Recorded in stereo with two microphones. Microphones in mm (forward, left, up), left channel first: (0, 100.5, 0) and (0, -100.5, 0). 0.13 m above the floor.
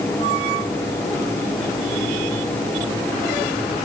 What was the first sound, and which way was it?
Only background noise.